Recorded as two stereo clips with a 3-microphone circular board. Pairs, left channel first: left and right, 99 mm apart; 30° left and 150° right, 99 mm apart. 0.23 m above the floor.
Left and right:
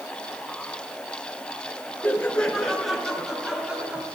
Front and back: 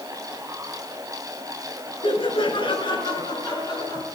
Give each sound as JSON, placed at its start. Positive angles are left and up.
{"t": 2.0, "sound": "laughter", "azimuth_deg": 20, "distance_m": 4.0}